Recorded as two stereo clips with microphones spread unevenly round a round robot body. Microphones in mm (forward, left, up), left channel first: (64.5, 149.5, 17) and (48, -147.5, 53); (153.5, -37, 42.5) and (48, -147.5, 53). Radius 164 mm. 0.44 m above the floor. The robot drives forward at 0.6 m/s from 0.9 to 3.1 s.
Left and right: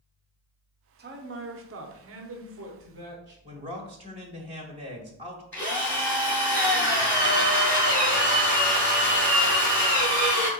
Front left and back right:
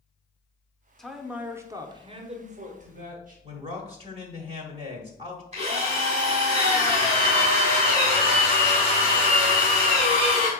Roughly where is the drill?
Behind.